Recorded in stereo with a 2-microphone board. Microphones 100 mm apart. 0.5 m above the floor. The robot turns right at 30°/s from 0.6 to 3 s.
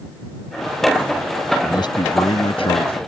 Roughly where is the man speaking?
Ahead left.